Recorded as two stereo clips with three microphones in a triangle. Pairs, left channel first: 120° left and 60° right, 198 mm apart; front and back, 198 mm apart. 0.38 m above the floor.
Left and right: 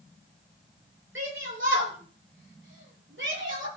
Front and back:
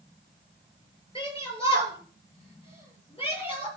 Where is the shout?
60° right, 7 m.